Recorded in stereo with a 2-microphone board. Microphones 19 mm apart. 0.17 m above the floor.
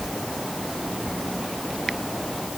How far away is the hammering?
No hammering in this recording.